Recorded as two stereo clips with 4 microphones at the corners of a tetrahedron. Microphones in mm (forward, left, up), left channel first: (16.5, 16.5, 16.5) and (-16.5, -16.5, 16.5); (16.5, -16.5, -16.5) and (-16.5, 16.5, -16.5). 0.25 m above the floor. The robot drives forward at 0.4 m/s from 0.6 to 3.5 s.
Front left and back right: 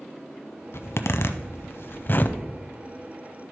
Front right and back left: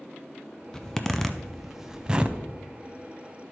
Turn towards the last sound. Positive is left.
turn(degrees=135)